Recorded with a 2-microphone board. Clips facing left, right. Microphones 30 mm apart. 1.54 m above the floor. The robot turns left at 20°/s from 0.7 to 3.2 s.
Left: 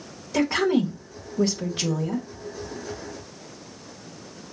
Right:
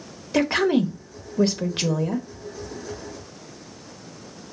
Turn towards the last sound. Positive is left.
turn(degrees=-100)